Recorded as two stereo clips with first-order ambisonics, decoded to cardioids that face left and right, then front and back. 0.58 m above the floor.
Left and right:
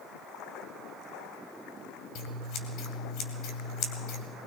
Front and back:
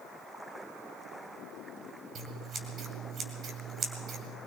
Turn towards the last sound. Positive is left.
turn(degrees=120)